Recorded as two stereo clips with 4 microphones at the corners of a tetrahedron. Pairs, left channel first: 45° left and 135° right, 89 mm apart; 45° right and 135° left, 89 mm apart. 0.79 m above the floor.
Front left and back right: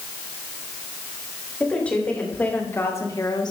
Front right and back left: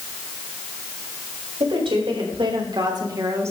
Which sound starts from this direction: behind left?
A woman speaking, at 1.6 s.